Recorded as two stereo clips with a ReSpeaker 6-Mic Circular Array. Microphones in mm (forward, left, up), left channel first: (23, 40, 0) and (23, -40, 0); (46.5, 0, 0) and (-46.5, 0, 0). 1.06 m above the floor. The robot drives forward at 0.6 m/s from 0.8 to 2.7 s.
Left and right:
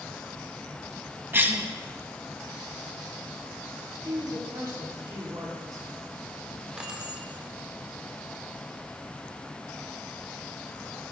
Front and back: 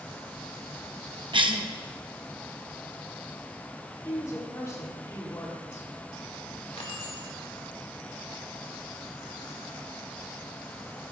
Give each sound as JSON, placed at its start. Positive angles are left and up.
{"t": 1.3, "sound": "a cough", "azimuth_deg": -155, "distance_m": 0.9}
{"t": 4.0, "sound": "a woman speaking", "azimuth_deg": -55, "distance_m": 3.0}
{"t": 6.8, "sound": "keys jangling", "azimuth_deg": -15, "distance_m": 1.9}